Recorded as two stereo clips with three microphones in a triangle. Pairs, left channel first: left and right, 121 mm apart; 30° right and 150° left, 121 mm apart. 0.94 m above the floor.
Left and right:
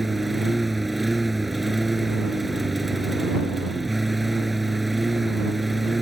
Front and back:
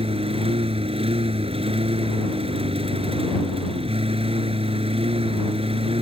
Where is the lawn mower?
Straight behind.